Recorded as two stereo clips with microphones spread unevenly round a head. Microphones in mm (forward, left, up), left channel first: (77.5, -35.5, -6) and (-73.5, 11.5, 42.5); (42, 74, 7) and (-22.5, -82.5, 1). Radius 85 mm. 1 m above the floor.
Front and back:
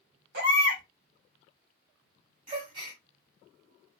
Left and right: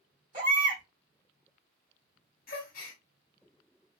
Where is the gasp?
105° left, 1.3 m.